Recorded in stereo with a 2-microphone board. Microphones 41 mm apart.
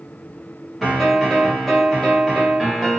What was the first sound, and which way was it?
A piano, 5° right (ahead or behind).